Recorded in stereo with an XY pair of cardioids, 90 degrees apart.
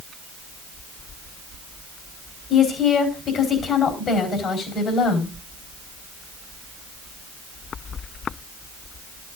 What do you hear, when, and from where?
2.5 s a woman speaking: 70° left, 4 m